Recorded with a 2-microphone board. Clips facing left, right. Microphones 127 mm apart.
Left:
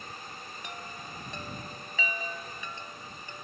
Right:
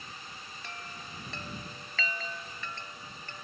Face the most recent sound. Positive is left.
turn(degrees=15)  # may be behind; listen again after turning